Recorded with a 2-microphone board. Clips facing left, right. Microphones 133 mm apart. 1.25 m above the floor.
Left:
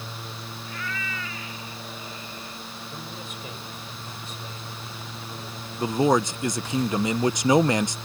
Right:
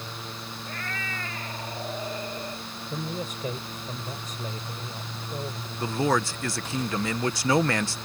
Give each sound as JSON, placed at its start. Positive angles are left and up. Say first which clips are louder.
{"t": 0.7, "sound": "a cat meowing", "louder": "left 2 dB", "side_deg": -50}
{"t": 2.9, "sound": "a man speaking", "louder": "right 9 dB", "side_deg": -45}
{"t": 5.8, "sound": "a man speaking", "louder": "left 4 dB", "side_deg": 20}